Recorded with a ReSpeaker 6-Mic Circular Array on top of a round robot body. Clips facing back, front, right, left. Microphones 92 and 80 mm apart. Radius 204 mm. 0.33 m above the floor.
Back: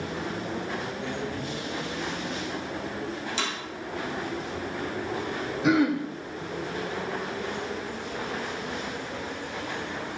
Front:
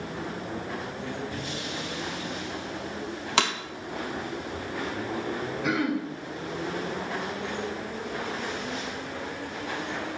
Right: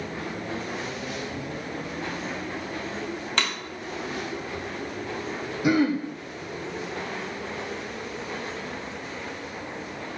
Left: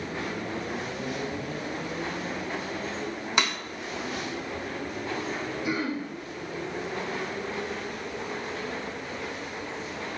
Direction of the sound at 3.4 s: 15° left.